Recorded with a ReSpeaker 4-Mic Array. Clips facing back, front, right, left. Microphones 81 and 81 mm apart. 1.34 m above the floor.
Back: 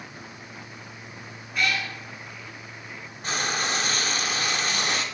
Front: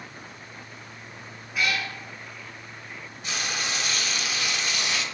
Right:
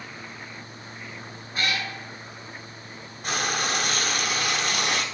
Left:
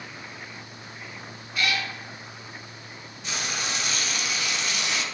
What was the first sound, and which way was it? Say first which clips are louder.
A cat meowing: back 1 dB, left 1 dB; 80° right.